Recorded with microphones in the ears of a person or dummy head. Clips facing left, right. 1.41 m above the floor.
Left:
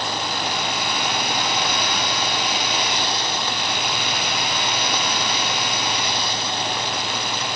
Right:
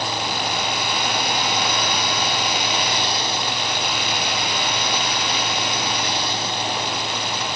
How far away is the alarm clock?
No alarm clock in this recording.